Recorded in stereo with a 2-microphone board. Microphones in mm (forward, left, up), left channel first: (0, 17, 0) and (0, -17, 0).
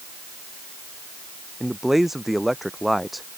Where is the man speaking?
5° right (ahead or behind); by 3.3 s centre (ahead or behind).